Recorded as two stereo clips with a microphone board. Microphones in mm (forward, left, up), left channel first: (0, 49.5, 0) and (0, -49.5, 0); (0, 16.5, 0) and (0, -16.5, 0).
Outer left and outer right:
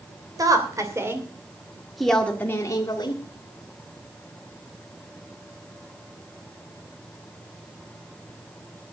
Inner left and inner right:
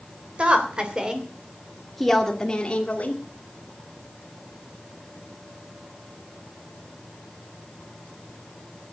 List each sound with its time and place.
0.4 s a woman speaking: 40° right (ahead or behind), 3.5 m; by 3.2 s 50° left (ahead or behind), 2 m